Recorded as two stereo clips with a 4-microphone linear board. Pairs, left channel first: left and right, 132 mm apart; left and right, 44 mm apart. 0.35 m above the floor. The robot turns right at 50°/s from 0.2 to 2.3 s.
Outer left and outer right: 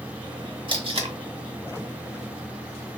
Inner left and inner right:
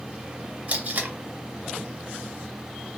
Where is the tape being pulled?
40° right (ahead or behind), 0.7 m; by 1.1 s 50° right (ahead or behind), 0.7 m.